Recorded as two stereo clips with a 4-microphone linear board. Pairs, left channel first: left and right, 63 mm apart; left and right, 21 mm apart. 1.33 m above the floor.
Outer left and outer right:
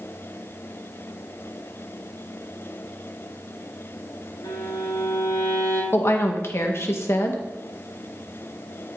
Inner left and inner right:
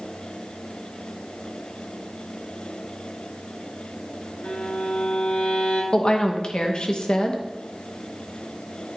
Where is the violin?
70° left (ahead or behind), 3 m.